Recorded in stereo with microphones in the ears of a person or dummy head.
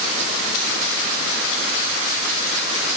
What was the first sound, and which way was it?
Only background noise.